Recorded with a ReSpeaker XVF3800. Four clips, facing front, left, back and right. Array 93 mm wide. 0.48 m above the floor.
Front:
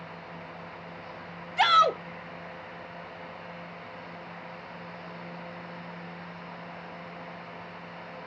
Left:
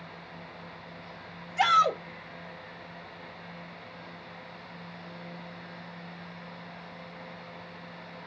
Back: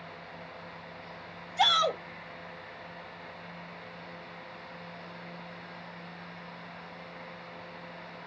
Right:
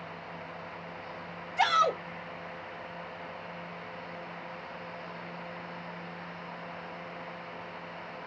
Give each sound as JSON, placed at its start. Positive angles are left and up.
{"t": 1.6, "sound": "a shout", "azimuth_deg": 5, "distance_m": 1.2}